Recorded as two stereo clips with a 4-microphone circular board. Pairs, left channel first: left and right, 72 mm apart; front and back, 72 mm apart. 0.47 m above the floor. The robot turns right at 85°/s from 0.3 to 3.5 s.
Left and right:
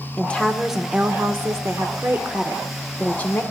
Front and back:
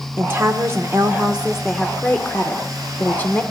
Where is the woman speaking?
155° left, 0.9 m; by 3.4 s 60° left, 0.9 m.